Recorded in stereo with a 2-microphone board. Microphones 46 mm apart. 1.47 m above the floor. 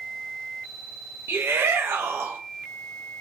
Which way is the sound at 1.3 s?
65° right (ahead or behind).